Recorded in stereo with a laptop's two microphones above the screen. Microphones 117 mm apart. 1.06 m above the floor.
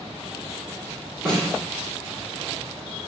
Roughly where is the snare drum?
Right.